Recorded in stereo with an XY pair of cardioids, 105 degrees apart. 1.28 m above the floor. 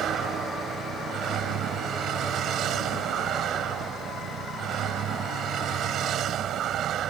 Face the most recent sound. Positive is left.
turn(degrees=-70)